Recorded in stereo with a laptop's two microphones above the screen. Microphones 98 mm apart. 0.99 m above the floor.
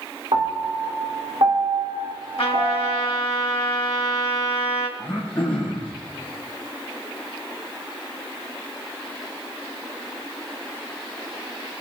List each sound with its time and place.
0.3 s a piano: 60° right (ahead or behind), 2 m
2.4 s a trumpet: 85° left, 2.0 m
5.0 s throat clearing: 10° left (ahead or behind), 4.5 m